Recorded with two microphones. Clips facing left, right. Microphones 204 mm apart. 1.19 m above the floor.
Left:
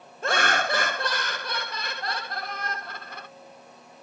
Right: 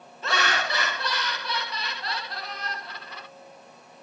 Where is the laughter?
45° left (ahead or behind), 0.7 m.